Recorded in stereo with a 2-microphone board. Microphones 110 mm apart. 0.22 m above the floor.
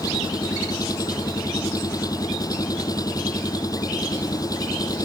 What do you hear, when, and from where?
0.0 s an engine running: 35° left (ahead or behind)